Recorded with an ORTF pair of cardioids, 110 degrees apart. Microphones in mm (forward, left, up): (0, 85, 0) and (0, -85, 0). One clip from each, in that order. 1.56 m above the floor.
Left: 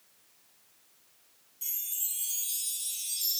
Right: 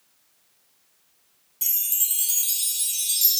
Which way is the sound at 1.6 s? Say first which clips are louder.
Right 10 dB; 60° right.